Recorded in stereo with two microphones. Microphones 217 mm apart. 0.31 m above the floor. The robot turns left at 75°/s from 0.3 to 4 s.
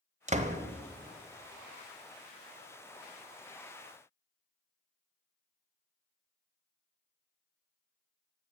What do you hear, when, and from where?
0.3 s a door slam: 30° right (ahead or behind), 0.7 m